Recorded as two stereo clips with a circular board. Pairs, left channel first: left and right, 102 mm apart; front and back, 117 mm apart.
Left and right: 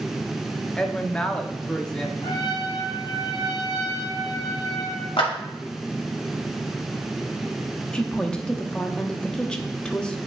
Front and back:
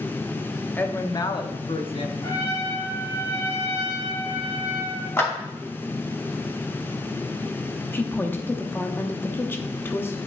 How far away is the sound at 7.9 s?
About 0.7 m.